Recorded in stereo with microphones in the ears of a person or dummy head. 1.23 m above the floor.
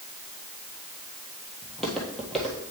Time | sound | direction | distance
1.6 | footsteps | centre (ahead or behind) | 1.5 m